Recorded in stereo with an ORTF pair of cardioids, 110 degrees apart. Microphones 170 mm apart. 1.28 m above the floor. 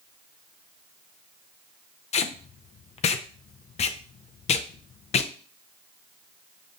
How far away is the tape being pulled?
About 0.6 m.